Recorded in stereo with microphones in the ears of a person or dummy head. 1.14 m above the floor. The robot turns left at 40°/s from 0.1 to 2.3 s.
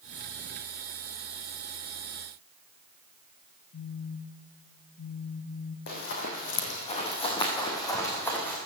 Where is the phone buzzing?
55° left (ahead or behind), 0.7 m.